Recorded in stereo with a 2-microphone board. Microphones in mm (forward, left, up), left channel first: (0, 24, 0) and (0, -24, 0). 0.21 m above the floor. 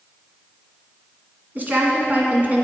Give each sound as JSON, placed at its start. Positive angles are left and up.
{"t": 1.6, "sound": "a woman speaking", "side_deg": -40, "distance_m": 2.0}